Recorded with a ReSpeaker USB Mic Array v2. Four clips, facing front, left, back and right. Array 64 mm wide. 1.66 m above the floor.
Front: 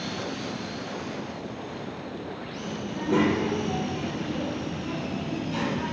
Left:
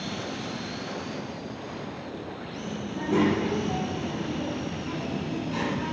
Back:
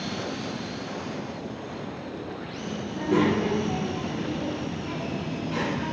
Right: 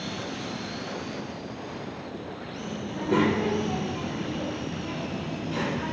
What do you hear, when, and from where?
2.9 s a child speaking: 95° right, 1.0 m; by 5.9 s 165° right, 2.0 m